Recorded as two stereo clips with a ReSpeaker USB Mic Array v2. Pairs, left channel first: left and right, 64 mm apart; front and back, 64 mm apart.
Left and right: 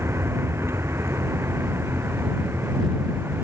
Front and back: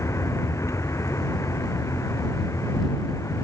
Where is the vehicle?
40° right.